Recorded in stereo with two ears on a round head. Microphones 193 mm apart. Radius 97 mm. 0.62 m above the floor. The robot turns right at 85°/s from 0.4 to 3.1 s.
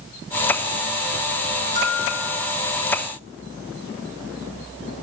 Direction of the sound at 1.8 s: 160° right.